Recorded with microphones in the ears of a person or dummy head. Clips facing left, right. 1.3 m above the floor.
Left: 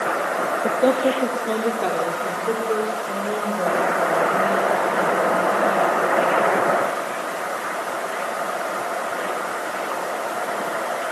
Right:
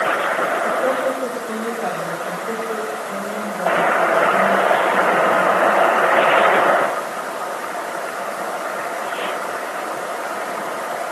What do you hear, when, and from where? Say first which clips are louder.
0.6 s a woman speaking: left 4 dB; 55° left (ahead or behind), 2.5 m; by 6.5 s 45° left (ahead or behind), 11.5 m